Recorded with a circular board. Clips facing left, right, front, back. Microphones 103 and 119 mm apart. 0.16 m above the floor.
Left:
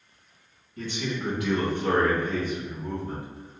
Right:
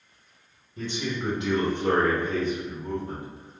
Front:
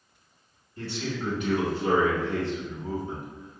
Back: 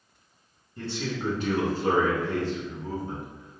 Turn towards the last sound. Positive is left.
turn(degrees=-150)